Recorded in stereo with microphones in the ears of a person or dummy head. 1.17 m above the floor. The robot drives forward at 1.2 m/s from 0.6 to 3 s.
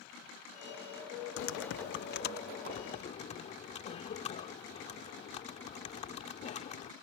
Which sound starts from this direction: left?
Typing on a keyboard, at 1.4 s.